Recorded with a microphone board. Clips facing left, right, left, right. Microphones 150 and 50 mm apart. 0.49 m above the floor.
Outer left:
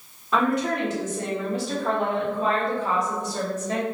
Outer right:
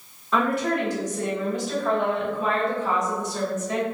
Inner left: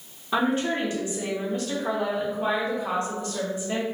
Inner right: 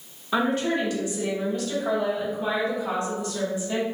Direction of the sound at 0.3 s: 15° left (ahead or behind).